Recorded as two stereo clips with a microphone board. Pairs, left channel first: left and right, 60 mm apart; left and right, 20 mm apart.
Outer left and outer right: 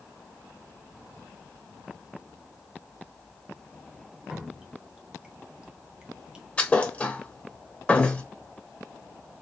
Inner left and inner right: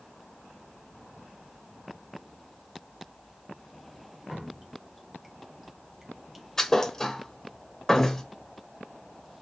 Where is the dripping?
15° right (ahead or behind), 0.9 m.